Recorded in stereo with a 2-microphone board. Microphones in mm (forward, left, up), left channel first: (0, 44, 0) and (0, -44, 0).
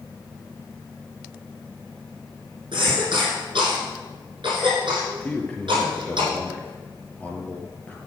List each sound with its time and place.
2.7 s a cough: 65° right (ahead or behind), 6 m
5.2 s a man speaking: 15° left (ahead or behind), 2.5 m